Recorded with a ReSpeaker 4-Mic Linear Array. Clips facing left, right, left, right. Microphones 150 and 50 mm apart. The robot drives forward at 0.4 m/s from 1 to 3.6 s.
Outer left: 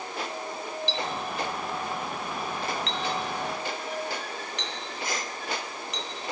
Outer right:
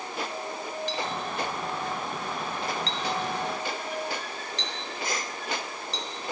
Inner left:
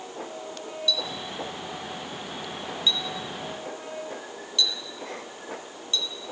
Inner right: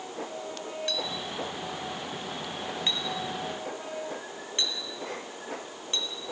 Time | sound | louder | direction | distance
0.9 | a clink | outer left 1 dB, inner left 5 dB | 50° right (ahead or behind) | 2.5 m